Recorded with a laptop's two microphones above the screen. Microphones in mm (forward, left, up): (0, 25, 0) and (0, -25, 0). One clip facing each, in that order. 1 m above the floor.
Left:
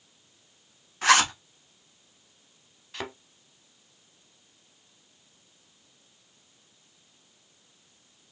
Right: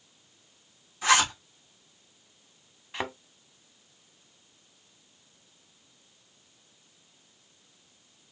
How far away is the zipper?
About 1.2 m.